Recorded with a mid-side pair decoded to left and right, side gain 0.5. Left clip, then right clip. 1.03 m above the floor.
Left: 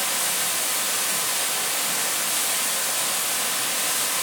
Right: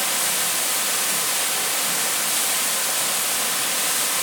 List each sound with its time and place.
0.0 s running water: 15° right, 1.4 m